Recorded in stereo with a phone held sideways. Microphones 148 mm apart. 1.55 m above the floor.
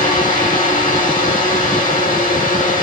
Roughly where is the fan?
Left.